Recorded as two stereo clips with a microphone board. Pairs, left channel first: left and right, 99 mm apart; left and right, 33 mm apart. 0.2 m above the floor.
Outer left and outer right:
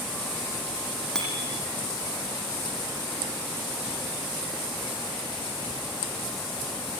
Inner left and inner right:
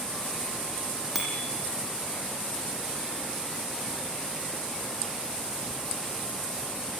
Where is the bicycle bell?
5° left (ahead or behind), 6.5 m.